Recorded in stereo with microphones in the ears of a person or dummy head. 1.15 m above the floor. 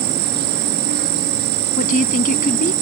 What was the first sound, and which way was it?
An insect, 60° right (ahead or behind).